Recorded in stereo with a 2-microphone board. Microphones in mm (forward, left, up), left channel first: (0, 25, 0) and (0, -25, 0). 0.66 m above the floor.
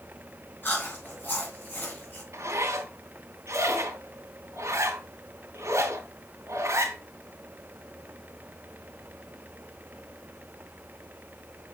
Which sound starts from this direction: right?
A zipper, at 2.3 s.